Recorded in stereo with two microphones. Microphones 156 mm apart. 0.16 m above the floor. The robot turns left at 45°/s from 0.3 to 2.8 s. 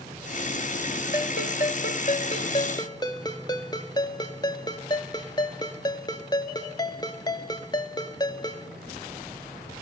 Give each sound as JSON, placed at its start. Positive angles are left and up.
{"t": 1.1, "sound": "a ringtone", "azimuth_deg": 105, "distance_m": 1.0}